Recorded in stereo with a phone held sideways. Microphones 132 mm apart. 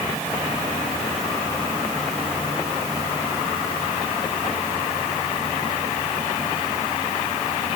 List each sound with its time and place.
Only background noise.